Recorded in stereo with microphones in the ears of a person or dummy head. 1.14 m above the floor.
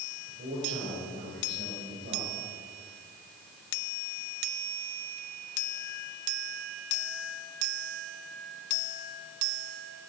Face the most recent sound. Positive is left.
turn(degrees=-55)  # may be behind; listen again after turning